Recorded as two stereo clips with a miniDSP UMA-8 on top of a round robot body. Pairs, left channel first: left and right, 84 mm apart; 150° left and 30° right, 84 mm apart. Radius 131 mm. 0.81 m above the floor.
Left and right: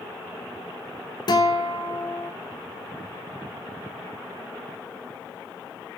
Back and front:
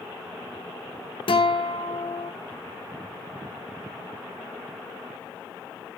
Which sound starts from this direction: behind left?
A guitar, at 1.3 s.